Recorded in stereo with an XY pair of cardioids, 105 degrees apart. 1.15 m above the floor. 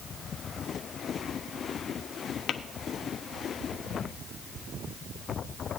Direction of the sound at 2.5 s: 60° left.